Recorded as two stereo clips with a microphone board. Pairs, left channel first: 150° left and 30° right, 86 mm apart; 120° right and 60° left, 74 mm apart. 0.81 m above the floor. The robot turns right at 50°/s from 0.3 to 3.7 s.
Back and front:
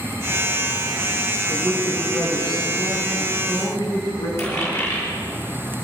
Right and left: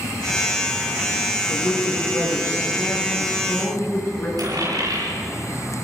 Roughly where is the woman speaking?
Left.